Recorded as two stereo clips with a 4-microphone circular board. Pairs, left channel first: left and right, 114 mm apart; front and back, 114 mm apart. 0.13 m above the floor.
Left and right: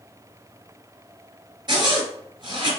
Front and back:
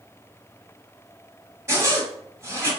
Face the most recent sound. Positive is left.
turn(degrees=-125)